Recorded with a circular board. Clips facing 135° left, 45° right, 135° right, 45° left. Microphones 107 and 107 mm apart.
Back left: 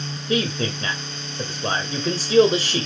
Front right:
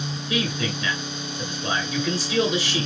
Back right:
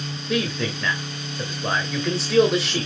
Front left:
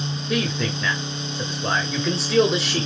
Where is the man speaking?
135° left, 1.3 m.